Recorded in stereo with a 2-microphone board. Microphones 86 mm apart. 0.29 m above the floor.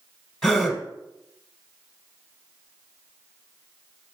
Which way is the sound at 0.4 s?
Centre (ahead or behind).